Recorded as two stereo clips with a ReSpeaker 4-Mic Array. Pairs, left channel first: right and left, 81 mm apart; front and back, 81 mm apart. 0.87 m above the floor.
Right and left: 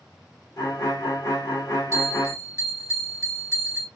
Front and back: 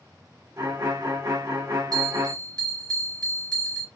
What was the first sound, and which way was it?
A violin, 135° right.